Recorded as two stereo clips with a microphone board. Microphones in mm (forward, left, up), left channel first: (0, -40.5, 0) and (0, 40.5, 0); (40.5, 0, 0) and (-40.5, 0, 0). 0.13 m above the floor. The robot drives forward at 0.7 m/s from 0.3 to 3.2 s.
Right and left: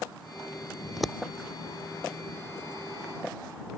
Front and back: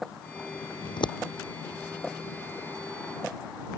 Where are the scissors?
Straight ahead.